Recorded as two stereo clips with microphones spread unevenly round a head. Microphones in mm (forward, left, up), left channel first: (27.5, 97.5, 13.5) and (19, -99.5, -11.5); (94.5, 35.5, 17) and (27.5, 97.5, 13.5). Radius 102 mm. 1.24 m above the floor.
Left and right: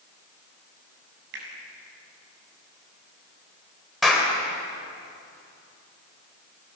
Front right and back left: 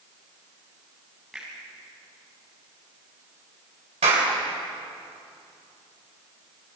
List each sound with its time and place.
1.3 s a finger snap: 135° right, 6.5 m
4.0 s a clap: 175° left, 3.5 m